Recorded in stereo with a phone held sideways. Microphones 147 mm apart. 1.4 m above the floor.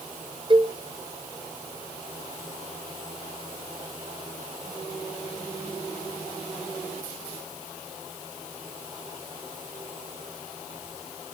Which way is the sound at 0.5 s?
35° right (ahead or behind).